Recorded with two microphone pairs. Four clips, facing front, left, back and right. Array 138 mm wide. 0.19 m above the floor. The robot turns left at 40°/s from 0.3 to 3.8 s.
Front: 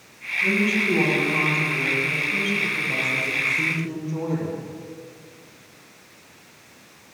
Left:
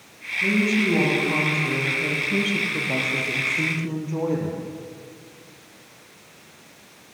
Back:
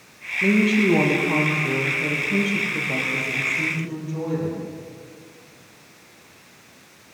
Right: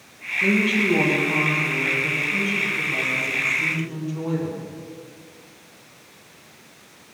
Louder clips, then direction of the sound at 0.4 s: Right 1 dB, back 5 dB; 155° right.